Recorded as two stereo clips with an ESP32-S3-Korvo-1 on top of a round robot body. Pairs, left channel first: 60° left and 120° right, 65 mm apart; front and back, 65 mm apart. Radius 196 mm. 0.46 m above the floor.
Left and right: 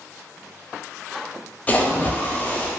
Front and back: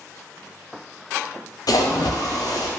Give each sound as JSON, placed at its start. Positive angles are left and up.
{"t": 1.7, "sound": "a splash", "azimuth_deg": -5, "distance_m": 0.5}